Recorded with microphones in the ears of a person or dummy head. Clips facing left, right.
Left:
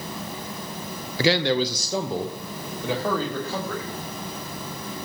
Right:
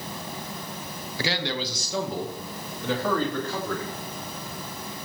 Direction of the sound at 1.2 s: 60° left (ahead or behind).